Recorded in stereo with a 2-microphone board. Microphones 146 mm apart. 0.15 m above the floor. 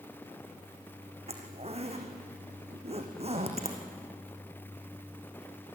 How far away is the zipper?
About 3 m.